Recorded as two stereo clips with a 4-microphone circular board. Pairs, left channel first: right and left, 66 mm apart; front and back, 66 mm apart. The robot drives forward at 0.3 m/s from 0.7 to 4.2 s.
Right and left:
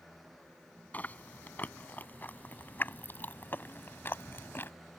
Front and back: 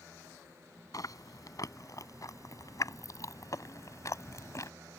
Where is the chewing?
30° right; by 4.7 s 35° right.